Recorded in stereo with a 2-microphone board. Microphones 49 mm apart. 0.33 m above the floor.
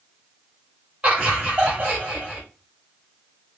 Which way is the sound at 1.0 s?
30° right (ahead or behind).